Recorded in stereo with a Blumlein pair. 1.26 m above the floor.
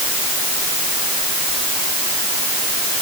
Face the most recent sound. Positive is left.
No sound to turn to.